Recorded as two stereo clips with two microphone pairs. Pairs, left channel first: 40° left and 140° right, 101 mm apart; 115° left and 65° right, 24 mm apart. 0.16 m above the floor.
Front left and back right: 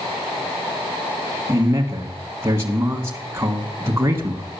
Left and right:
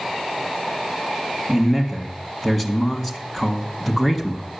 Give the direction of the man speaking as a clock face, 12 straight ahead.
6 o'clock.